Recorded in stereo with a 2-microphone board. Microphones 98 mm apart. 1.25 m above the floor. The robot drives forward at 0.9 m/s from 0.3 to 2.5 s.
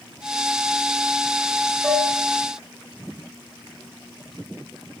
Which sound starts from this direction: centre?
Dishes clattering, at 1.8 s.